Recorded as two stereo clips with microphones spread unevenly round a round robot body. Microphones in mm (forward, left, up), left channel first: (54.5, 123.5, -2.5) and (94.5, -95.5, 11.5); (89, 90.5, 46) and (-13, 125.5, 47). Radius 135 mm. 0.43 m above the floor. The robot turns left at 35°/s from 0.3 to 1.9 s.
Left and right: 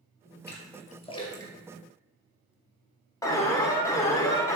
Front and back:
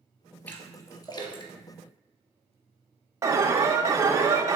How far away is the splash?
About 2.5 m.